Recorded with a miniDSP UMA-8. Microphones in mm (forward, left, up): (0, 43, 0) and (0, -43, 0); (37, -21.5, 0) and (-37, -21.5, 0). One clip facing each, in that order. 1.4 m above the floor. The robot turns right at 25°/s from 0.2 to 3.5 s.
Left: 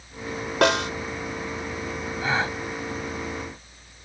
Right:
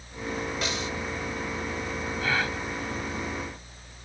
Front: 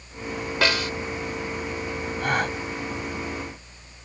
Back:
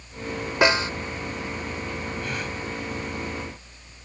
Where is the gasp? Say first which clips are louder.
Left 3 dB, front 6 dB; 25° left; by 2.6 s 35° left.